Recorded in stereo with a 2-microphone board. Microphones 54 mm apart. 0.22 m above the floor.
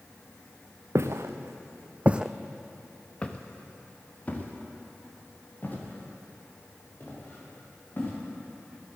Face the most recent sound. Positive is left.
turn(degrees=35)  # may be behind; listen again after turning